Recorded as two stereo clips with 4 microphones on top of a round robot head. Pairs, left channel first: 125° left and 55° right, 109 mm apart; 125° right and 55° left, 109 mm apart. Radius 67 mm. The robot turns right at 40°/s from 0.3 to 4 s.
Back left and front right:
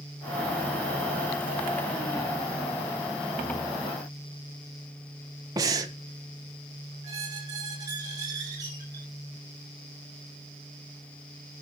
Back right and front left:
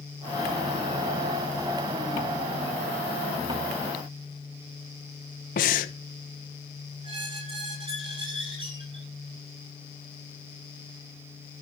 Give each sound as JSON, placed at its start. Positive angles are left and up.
{"t": 5.6, "sound": "breathing", "azimuth_deg": -115, "distance_m": 1.1}
{"t": 7.0, "sound": "a squeak", "azimuth_deg": 5, "distance_m": 6.5}